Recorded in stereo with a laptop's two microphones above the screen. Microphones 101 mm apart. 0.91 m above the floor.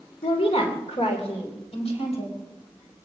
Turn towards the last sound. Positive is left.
turn(degrees=75)  # may be behind; listen again after turning